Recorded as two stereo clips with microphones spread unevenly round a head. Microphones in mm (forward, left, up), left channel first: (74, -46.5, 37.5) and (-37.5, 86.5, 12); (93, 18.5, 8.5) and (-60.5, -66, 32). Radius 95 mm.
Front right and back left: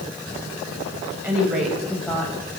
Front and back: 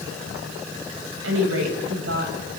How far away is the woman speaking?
About 4.5 m.